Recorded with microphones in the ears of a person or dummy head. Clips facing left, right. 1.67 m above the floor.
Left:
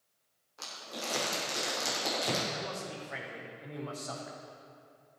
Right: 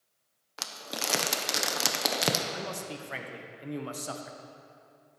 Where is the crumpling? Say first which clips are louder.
Right 3 dB; 80° right, 1.1 m.